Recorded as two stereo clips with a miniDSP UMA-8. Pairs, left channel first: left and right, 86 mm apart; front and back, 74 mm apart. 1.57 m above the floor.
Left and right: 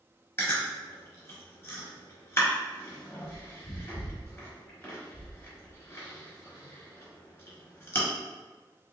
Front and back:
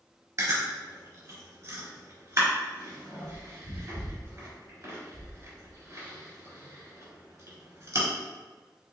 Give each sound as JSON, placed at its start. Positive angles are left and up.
{"t": 0.4, "sound": "chewing", "azimuth_deg": 145, "distance_m": 1.7}